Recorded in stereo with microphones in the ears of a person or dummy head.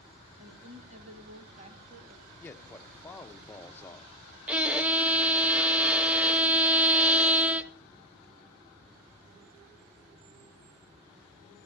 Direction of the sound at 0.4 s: 35° right (ahead or behind).